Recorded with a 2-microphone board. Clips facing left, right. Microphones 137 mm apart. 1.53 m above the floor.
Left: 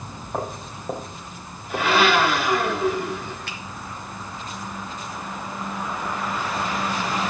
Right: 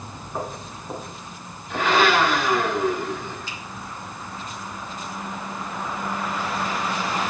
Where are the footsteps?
65° left (ahead or behind), 4 m; by 2.2 s 50° left (ahead or behind), 5 m.